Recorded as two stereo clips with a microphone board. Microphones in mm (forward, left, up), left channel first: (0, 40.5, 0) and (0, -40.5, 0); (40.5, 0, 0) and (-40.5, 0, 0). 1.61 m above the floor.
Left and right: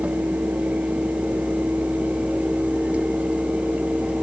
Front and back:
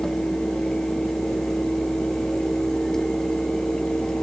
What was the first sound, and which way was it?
Only background noise.